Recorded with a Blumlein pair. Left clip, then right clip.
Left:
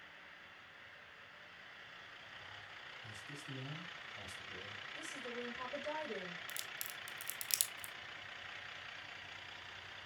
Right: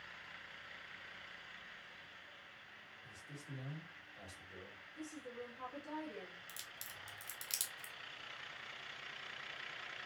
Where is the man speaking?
65° left, 3.5 m.